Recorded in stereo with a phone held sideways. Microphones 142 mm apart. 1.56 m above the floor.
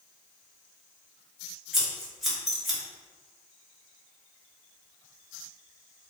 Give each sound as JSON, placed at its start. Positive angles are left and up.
{"t": 1.7, "sound": "scissors", "side_deg": 0, "distance_m": 1.0}